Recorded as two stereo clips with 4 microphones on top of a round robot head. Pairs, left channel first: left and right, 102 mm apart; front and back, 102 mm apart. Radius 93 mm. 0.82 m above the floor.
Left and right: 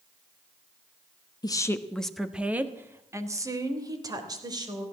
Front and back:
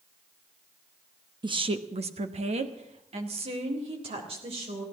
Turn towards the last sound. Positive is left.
turn(degrees=-140)